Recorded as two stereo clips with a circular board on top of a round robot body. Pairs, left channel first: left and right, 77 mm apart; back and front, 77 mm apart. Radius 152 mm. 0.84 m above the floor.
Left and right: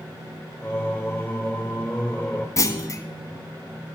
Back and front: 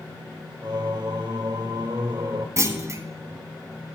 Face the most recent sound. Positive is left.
turn(degrees=45)